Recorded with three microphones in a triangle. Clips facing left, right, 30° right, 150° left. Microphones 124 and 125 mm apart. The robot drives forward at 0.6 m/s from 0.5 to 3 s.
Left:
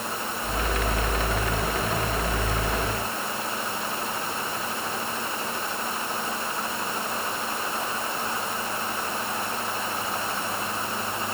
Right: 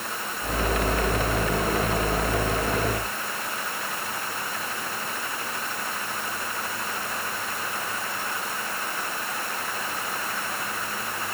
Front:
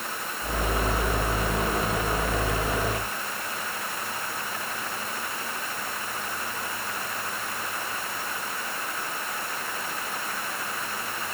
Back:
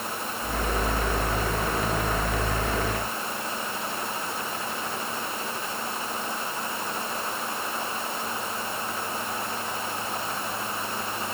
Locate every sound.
Only background noise.